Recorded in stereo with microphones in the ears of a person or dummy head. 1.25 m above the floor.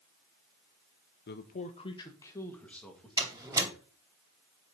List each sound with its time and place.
1.3 s a man speaking: 50° left (ahead or behind), 0.9 m; by 3.8 s centre (ahead or behind), 2.5 m
3.2 s a door slam: 20° right (ahead or behind), 2.5 m